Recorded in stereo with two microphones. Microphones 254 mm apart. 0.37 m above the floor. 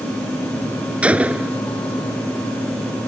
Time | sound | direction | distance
1.0 | a gunshot | 5° right (ahead or behind) | ?